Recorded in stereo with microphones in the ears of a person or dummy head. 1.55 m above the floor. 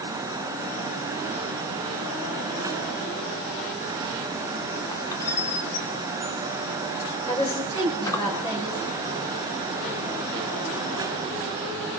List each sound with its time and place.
4.9 s a squeak: 15° left (ahead or behind), 2 m
7.3 s a woman speaking: 25° left (ahead or behind), 7.5 m